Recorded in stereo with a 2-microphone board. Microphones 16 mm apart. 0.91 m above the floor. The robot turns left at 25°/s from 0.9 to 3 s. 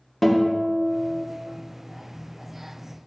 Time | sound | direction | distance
0.2 | a guitar | 15° left (ahead or behind) | 1.2 m